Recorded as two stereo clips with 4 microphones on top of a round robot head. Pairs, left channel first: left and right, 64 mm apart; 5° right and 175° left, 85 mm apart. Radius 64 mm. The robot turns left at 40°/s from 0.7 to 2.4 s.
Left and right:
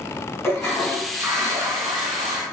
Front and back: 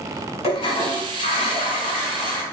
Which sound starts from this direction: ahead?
A toilet flushing, at 0.4 s.